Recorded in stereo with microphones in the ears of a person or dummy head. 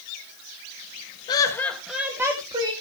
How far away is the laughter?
About 1.1 m.